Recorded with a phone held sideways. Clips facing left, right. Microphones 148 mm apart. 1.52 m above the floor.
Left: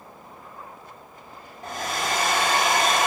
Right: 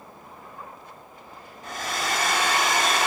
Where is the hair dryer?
60° left (ahead or behind), 3.5 m.